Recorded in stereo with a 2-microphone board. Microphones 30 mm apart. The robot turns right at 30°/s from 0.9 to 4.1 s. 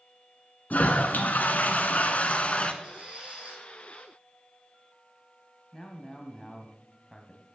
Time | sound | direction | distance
0.7 | a toilet flushing | 80° left | 1.0 m
2.8 | a squeak | 45° right (ahead or behind) | 3 m
5.7 | a man speaking | 20° left (ahead or behind) | 1.1 m